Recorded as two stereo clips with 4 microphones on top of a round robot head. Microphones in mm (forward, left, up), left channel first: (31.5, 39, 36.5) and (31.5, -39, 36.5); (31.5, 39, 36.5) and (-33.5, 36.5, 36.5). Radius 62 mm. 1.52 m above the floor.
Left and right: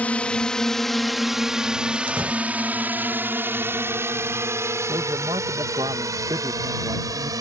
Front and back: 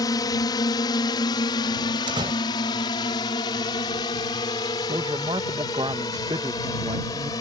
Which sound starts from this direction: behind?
A door slam, at 2.1 s.